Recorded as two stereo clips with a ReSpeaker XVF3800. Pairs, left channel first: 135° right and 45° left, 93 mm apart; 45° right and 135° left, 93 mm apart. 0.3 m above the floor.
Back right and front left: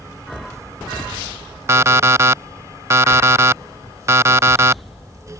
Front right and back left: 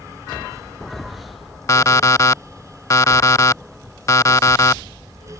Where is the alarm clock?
5° right.